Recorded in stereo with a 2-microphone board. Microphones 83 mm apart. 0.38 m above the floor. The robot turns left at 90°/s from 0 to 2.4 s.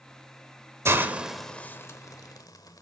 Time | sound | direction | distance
0.8 | a hiss | 35° right (ahead or behind) | 0.8 m